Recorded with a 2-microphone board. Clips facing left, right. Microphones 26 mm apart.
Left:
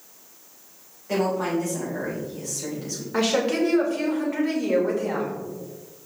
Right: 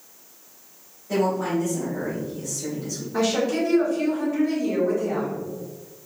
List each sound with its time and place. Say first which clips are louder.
1.1 s a woman speaking: right 1 dB; 45° left (ahead or behind), 3 m
3.1 s a woman speaking: left 1 dB; 60° left (ahead or behind), 2.5 m